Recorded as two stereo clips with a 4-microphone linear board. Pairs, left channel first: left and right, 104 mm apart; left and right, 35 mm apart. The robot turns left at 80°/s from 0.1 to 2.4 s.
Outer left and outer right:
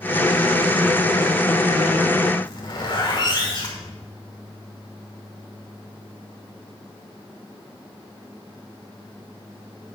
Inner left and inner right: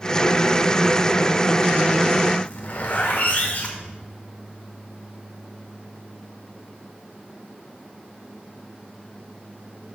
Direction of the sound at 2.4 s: 45° left (ahead or behind).